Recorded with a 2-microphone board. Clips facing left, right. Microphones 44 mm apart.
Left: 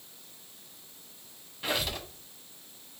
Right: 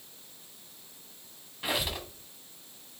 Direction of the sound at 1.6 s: 10° right (ahead or behind).